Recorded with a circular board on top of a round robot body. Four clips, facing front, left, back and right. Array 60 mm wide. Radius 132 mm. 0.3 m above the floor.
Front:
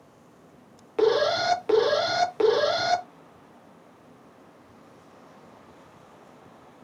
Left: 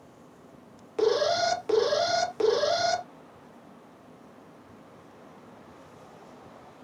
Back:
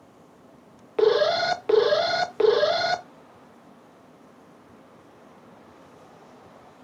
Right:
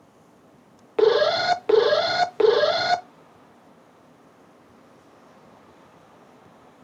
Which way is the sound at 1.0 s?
105° right.